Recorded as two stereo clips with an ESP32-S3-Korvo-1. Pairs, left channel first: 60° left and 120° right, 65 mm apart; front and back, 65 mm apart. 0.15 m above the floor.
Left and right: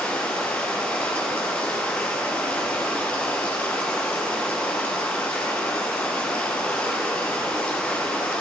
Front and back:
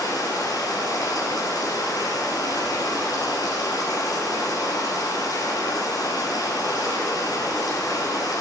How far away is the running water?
About 3 m.